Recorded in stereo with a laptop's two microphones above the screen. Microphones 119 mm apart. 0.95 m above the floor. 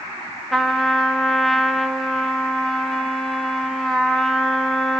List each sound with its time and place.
0.5 s a trumpet: centre (ahead or behind), 1.1 m